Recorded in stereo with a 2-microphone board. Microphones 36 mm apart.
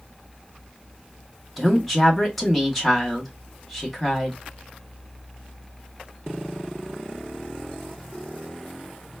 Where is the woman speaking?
5° left (ahead or behind), 1.2 m.